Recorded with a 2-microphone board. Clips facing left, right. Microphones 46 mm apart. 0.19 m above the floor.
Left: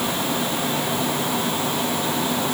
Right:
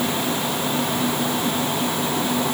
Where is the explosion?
I don't hear an explosion.